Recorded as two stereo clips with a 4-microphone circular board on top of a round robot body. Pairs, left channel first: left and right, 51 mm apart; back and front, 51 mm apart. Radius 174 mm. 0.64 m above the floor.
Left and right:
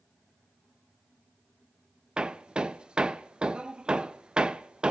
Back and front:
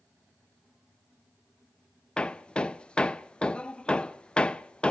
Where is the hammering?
135° right, 0.9 m.